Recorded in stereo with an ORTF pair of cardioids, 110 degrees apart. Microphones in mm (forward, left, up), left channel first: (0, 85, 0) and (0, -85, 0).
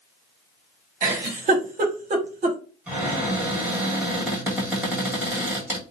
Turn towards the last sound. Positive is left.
turn(degrees=-10)